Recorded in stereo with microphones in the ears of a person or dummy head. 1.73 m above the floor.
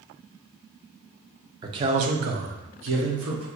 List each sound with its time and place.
1.6 s a man speaking: 25° right (ahead or behind), 0.6 m; by 3.5 s 60° right (ahead or behind), 1.1 m